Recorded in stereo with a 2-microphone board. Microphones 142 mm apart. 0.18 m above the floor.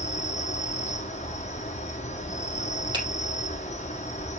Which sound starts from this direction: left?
An insect, at 0.0 s.